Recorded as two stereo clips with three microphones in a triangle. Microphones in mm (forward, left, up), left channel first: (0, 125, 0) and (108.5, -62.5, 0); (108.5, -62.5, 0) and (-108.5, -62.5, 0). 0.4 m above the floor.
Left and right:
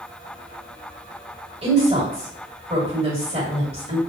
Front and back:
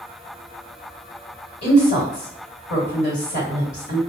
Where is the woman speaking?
5° right, 1.9 m.